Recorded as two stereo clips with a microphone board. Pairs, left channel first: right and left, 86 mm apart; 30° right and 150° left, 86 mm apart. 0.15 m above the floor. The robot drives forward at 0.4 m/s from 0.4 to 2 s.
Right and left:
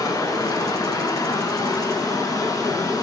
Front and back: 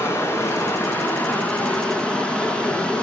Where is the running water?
75° right, 1.8 m; by 3.0 s 105° right, 1.8 m.